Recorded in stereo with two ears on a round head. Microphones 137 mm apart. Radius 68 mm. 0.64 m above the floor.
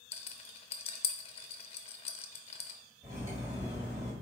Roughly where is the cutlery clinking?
Centre.